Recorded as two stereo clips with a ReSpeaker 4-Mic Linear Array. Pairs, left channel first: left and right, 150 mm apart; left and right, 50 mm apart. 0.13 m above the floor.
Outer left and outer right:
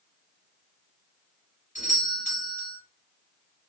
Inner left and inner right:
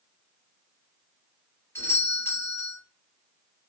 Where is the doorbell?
55° left (ahead or behind), 3.5 m.